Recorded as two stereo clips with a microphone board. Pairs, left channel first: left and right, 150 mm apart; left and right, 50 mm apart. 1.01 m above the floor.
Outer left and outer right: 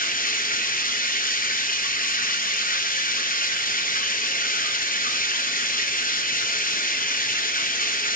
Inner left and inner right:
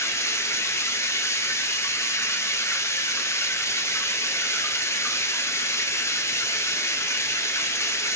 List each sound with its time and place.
0.0 s running water: 65° left (ahead or behind), 0.9 m